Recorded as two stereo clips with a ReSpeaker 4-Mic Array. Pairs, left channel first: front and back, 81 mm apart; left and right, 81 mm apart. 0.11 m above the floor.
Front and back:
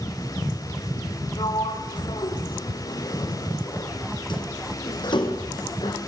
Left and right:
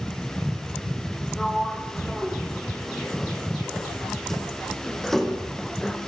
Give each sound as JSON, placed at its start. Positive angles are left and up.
{"t": 1.4, "sound": "a sliding door", "azimuth_deg": 5, "distance_m": 3.5}